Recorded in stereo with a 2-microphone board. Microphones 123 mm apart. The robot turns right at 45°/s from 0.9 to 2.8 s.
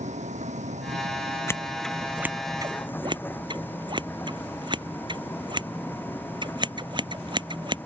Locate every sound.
0.0 s a vehicle: 70° right (ahead or behind); by 7.9 s 15° left (ahead or behind)
1.5 s scissors: 20° left (ahead or behind); by 7.8 s 40° right (ahead or behind)